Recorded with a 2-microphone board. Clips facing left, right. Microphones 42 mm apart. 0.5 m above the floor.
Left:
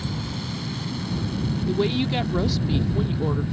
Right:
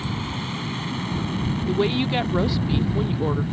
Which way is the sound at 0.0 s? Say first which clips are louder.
Right 2 dB; 35° right (ahead or behind).